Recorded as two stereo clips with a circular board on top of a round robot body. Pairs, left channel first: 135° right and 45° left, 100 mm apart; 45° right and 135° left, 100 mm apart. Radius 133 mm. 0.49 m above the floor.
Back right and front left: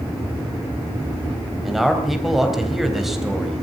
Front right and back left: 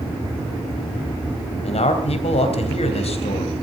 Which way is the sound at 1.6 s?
45° right.